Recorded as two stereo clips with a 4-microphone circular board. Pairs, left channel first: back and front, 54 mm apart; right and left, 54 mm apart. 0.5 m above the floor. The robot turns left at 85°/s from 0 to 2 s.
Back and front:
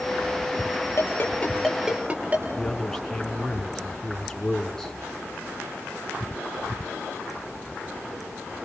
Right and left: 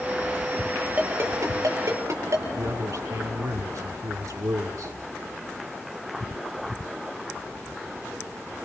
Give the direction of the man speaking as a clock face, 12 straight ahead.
9 o'clock.